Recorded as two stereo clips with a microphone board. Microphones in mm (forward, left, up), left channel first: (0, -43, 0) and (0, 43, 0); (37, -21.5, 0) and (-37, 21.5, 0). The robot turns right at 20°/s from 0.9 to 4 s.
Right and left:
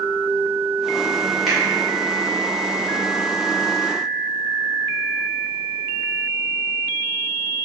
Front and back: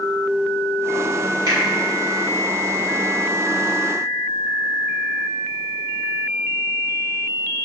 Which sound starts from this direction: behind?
A finger snap, at 1.5 s.